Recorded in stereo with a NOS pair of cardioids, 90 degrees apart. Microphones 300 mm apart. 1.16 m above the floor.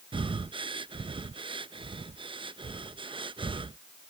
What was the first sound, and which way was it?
Breathing, 15° right.